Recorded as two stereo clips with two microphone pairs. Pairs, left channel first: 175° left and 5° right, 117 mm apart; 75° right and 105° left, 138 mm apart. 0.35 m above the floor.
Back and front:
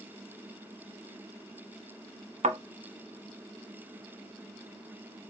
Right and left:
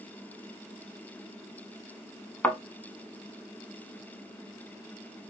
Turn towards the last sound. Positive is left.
turn(degrees=5)